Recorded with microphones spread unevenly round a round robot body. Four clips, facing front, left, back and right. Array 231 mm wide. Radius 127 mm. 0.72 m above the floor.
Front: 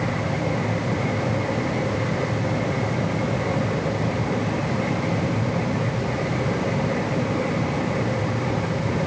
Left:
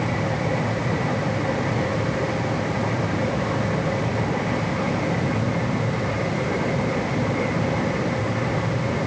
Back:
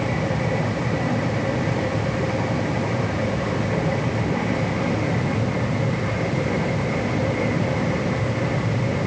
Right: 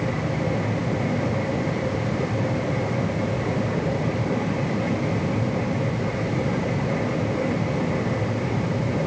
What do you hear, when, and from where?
Only background noise.